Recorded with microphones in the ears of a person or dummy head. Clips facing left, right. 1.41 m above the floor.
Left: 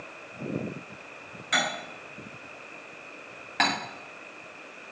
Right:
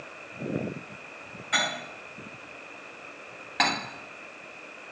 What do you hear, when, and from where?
1.5 s cutlery clinking: 65° left (ahead or behind), 4 m
3.6 s cutlery clinking: centre (ahead or behind), 1.2 m